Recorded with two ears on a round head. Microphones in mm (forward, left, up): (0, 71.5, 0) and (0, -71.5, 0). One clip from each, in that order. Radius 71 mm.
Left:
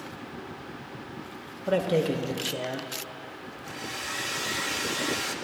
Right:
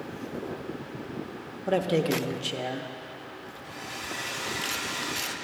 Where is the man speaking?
5° right (ahead or behind), 0.8 m.